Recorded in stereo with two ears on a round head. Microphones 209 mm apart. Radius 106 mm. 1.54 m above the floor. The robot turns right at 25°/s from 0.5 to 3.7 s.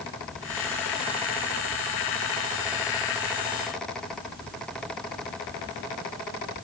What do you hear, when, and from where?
Only background noise.